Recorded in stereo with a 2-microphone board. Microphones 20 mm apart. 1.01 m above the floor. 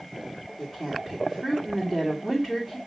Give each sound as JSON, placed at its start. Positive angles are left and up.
{"t": 0.6, "sound": "a woman speaking", "side_deg": 0, "distance_m": 2.5}